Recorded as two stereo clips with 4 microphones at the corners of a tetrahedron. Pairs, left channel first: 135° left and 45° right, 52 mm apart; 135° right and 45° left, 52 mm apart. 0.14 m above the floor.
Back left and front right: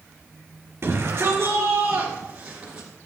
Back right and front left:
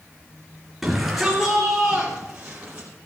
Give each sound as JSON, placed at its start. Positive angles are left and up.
{"t": 0.8, "sound": "a shout", "azimuth_deg": -40, "distance_m": 2.5}